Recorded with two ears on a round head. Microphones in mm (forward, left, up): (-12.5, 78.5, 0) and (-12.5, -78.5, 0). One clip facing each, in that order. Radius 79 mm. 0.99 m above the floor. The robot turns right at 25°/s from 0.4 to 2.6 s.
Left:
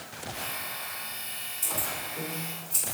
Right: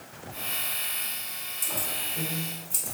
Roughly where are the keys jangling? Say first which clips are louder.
Left 1 dB; right.